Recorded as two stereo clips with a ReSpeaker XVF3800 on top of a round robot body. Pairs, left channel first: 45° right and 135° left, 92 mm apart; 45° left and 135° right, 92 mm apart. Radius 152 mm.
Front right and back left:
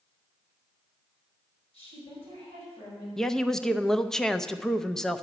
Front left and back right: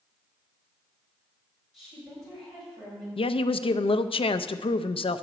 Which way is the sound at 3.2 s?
40° left.